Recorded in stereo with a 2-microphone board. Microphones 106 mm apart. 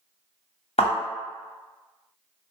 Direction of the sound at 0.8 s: 80° left.